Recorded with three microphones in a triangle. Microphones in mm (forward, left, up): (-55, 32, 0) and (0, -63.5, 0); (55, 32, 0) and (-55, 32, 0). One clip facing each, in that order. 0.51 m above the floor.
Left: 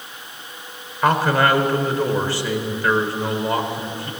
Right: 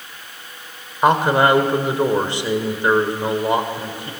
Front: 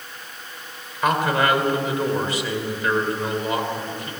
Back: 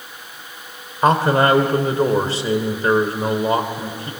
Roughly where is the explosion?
I don't hear an explosion.